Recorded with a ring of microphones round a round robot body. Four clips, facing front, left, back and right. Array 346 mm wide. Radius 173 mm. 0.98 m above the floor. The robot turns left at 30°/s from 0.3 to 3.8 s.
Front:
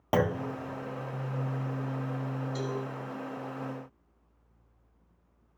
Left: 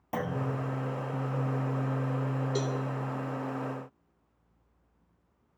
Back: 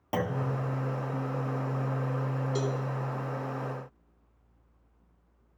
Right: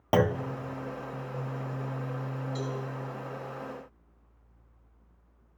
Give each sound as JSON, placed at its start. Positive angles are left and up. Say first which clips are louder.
{"t": 0.1, "sound": "a clunk", "louder": "right 8 dB, front 4 dB", "azimuth_deg": -65, "distance_m": 0.6}
{"t": 2.5, "sound": "a cowbell", "louder": "left 3 dB, back 4 dB", "azimuth_deg": 125, "distance_m": 1.0}